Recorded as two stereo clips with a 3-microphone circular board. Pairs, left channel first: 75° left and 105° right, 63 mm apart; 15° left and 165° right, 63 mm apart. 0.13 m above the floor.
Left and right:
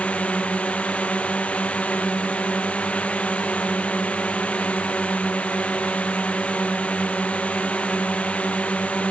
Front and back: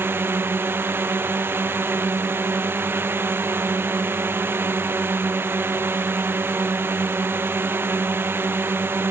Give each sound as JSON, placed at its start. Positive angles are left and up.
{"t": 0.0, "sound": "a drone", "azimuth_deg": 145}